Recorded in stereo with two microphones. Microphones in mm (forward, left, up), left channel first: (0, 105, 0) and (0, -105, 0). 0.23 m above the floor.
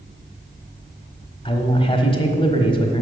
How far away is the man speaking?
About 1.3 m.